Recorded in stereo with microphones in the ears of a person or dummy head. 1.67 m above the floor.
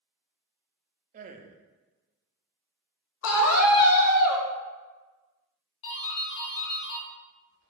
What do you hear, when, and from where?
1.1 s a man speaking: 40° right (ahead or behind), 0.5 m
3.2 s a scream: 80° left, 1.0 m
5.8 s a doorbell: 60° left (ahead or behind), 0.9 m